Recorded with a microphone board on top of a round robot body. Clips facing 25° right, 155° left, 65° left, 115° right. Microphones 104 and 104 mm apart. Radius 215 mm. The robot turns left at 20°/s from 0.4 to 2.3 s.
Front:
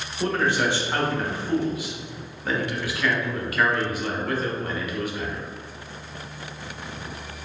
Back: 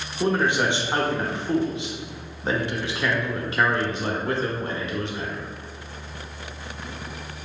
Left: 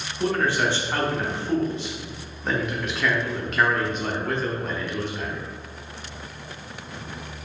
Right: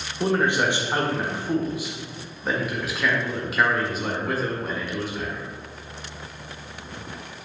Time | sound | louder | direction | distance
0.2 | a man speaking | back 1 dB, right 1 dB | 155° right | 0.9 m